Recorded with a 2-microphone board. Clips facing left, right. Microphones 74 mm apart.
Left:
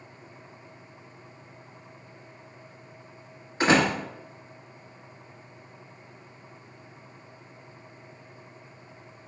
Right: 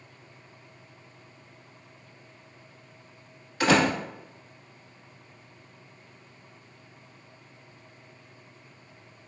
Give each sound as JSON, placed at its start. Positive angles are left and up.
{"t": 3.6, "sound": "a door slam", "side_deg": 25, "distance_m": 1.6}